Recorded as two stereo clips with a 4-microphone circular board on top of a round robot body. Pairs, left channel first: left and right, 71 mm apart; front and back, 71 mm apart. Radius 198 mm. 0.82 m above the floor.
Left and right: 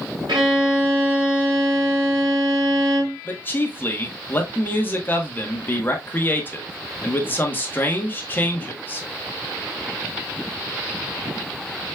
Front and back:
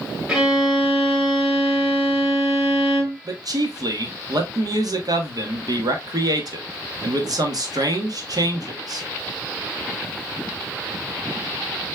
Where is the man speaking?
150° left, 1.6 m.